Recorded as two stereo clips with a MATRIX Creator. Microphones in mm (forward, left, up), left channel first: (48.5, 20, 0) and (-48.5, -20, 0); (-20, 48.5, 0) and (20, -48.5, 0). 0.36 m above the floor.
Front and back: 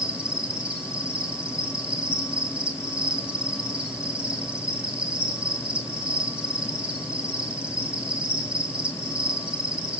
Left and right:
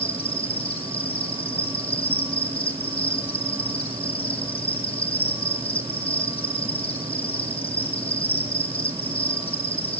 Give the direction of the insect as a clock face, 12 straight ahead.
8 o'clock.